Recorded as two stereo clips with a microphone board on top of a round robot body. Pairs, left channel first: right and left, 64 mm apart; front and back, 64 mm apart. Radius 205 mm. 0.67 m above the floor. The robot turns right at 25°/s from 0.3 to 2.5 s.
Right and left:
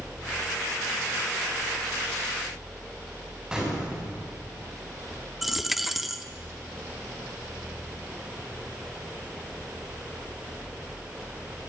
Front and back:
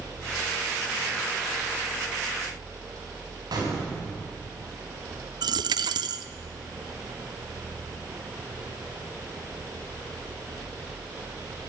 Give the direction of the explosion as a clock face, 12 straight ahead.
6 o'clock.